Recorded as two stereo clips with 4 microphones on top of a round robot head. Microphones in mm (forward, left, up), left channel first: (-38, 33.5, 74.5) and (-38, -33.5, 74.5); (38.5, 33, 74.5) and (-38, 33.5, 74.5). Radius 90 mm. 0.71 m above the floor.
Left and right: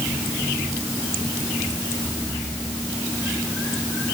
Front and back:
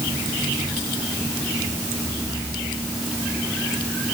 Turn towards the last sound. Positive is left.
No sound to turn to.